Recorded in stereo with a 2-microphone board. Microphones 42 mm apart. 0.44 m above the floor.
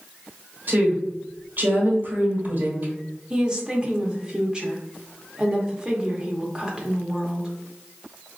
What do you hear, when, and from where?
0.7 s a woman speaking: 45° right (ahead or behind), 1.4 m
3.3 s a woman speaking: 20° right (ahead or behind), 0.8 m